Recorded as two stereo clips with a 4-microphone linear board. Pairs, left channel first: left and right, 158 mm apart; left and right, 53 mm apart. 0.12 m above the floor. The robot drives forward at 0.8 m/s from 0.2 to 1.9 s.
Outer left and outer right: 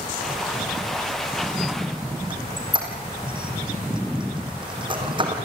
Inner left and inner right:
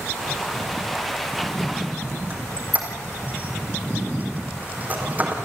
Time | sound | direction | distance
2.3 | a squeak | 30° right (ahead or behind) | 4 m